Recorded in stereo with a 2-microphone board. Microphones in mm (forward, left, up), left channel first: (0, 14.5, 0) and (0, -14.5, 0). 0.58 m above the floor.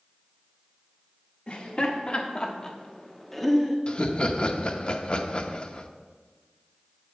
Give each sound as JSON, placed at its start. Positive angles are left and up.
{"t": 1.5, "sound": "laughter", "side_deg": 50, "distance_m": 1.4}
{"t": 3.9, "sound": "laughter", "side_deg": 40, "distance_m": 0.8}